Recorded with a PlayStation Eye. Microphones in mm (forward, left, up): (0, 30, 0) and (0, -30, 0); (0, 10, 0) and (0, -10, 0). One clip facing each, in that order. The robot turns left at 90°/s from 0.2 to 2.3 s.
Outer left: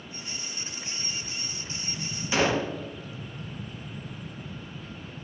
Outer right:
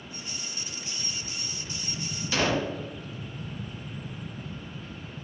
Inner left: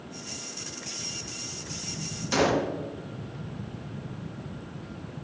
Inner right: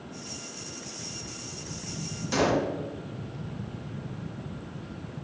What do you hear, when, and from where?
2.3 s a gunshot: 20° left (ahead or behind), 0.6 m